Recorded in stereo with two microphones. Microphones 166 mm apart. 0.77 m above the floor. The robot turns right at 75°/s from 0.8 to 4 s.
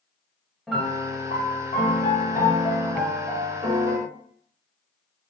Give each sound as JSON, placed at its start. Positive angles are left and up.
{"t": 0.7, "sound": "a piano", "azimuth_deg": 0, "distance_m": 0.8}